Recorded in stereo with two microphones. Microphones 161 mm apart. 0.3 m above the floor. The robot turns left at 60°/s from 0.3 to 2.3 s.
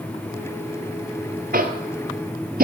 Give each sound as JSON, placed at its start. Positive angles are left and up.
{"t": 1.5, "sound": "tapping", "side_deg": -65, "distance_m": 1.0}